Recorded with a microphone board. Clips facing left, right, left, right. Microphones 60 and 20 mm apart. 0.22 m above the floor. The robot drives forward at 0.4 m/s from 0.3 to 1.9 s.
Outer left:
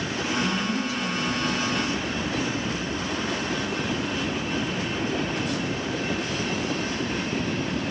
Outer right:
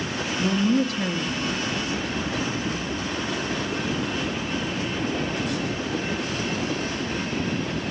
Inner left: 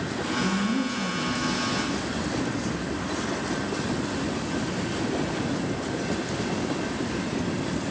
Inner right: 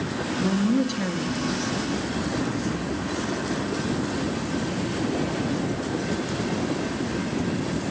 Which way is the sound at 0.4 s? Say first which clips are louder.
Outer right 8 dB, inner right 4 dB; 60° right (ahead or behind).